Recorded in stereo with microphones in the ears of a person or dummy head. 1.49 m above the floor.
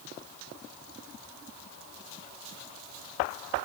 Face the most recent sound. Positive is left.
No sound to turn to.